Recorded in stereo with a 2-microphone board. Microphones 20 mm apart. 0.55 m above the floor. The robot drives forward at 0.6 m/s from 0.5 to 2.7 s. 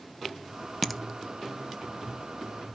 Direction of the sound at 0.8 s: 10° left (ahead or behind).